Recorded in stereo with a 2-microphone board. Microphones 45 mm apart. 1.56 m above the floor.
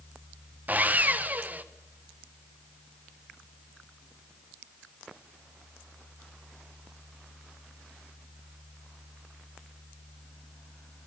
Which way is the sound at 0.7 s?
40° right (ahead or behind).